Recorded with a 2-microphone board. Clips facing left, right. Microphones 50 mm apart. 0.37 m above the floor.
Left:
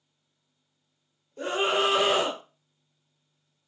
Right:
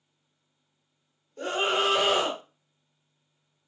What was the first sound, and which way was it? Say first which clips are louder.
A scream: left 1 dB; 15° left (ahead or behind).